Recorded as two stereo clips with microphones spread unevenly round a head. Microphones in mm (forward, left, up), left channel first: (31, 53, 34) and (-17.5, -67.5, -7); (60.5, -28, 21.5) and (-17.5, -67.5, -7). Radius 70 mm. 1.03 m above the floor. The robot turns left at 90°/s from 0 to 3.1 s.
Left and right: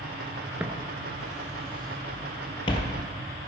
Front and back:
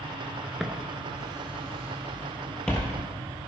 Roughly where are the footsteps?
Ahead.